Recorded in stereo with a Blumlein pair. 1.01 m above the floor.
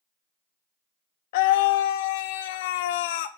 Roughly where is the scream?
Ahead left.